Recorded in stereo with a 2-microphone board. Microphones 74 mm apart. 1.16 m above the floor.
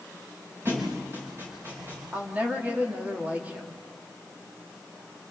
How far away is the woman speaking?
About 2.5 m.